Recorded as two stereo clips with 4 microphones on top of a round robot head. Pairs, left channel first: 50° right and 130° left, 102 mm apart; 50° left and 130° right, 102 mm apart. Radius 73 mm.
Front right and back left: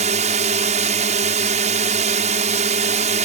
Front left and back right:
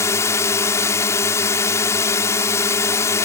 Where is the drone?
115° left.